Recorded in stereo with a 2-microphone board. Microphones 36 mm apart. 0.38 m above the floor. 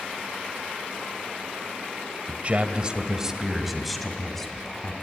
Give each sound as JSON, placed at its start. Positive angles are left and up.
{"t": 2.3, "sound": "a man speaking", "side_deg": -45, "distance_m": 1.6}